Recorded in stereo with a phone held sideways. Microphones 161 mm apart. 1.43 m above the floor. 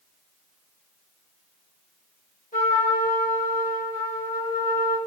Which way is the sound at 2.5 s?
55° left (ahead or behind).